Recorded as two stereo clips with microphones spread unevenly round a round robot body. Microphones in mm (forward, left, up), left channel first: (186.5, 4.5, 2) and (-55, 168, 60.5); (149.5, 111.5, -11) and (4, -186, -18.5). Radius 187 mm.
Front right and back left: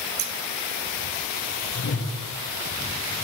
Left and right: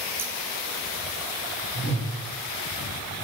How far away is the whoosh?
About 3.5 m.